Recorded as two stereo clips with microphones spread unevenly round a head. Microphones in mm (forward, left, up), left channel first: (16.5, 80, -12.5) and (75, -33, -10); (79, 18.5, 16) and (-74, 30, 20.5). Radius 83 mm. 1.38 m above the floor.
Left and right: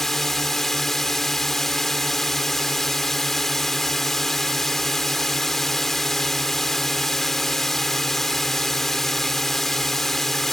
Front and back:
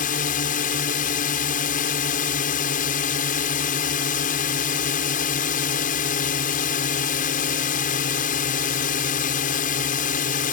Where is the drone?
30° left.